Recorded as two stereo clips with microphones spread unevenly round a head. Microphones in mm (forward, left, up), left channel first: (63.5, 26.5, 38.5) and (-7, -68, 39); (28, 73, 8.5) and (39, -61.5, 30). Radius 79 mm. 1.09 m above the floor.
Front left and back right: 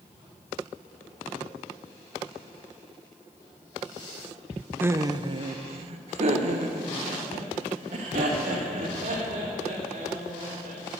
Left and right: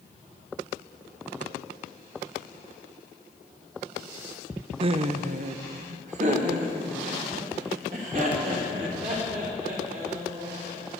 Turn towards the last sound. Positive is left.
turn(degrees=-135)